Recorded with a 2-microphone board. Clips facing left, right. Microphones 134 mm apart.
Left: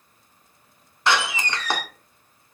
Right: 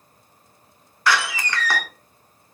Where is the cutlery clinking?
I don't hear cutlery clinking.